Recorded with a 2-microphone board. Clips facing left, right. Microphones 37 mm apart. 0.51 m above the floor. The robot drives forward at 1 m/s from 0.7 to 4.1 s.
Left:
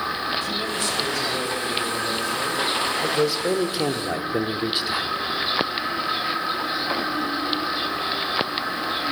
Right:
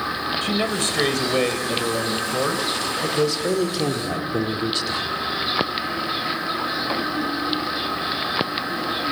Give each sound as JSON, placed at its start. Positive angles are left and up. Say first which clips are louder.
{"t": 0.4, "sound": "a man speaking", "louder": "right 3 dB", "side_deg": -60, "distance_m": 3.0}
{"t": 3.0, "sound": "a man speaking", "louder": "right 2 dB", "side_deg": 10, "distance_m": 1.9}